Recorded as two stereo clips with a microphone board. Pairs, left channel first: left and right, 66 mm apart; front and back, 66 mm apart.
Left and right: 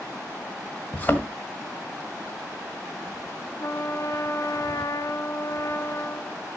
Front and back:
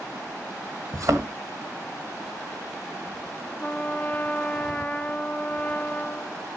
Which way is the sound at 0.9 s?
150° left.